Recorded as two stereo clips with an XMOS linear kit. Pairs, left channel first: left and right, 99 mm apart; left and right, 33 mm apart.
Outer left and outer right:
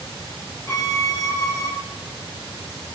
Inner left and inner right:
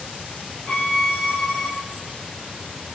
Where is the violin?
30° left (ahead or behind), 0.9 m.